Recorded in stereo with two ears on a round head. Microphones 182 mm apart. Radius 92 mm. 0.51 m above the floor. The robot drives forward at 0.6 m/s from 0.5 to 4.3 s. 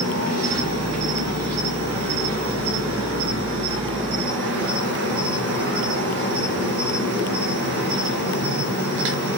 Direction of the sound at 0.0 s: 75° right (ahead or behind).